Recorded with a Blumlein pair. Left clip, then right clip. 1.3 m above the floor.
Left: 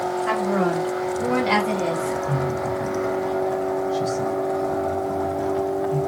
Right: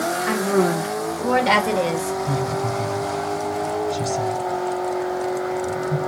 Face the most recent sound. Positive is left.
turn(degrees=-35)